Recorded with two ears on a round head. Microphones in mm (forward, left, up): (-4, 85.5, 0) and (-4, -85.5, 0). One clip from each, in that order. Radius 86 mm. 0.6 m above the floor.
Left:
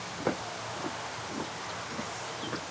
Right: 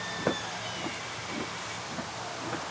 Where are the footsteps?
Centre (ahead or behind), 1.4 m; by 2.7 s 10° left (ahead or behind), 3 m.